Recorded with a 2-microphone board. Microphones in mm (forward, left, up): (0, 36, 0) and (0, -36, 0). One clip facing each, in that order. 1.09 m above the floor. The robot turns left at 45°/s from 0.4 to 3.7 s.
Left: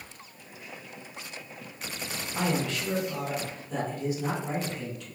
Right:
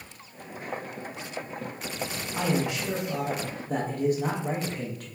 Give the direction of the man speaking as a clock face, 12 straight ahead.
12 o'clock.